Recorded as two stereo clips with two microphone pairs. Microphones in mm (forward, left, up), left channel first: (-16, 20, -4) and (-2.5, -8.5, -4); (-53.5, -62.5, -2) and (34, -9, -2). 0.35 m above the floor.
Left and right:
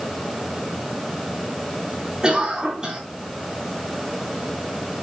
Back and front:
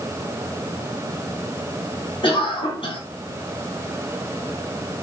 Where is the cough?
130° right, 4 m.